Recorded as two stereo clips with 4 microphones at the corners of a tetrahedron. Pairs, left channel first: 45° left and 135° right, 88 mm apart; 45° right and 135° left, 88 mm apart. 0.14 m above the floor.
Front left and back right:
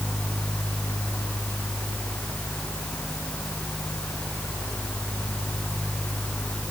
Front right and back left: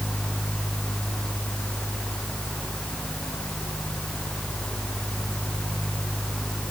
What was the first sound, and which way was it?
Only background noise.